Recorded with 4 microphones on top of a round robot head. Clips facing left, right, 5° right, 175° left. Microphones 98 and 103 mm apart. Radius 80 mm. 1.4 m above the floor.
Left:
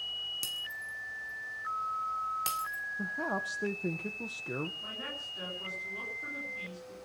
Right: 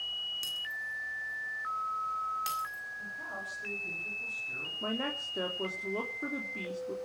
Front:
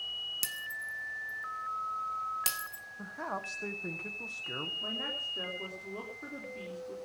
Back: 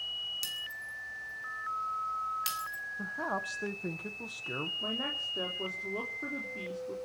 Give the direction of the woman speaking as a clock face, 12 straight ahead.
4 o'clock.